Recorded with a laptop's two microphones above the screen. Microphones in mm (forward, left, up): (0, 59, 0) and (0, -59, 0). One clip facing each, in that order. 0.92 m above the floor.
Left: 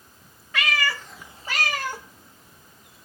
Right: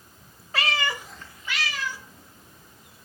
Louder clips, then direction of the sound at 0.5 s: Left 1 dB; 35° right (ahead or behind).